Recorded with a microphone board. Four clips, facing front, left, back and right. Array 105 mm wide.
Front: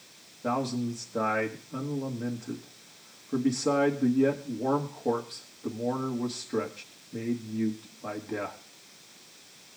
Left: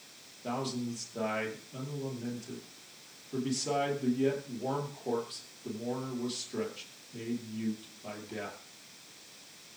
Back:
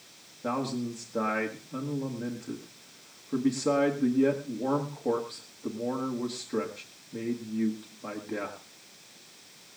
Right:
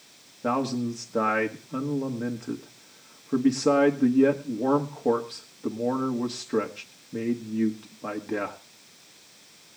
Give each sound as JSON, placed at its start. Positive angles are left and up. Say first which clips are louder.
{"t": 0.4, "sound": "a man speaking", "louder": "right 9 dB, front 2 dB", "azimuth_deg": -85, "distance_m": 1.7}